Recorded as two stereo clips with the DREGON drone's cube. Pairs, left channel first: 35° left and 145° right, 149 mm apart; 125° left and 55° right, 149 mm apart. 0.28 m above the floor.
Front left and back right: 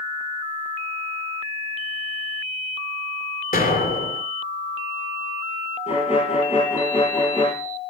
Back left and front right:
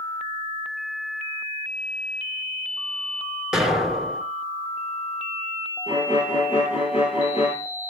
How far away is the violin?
About 4.5 m.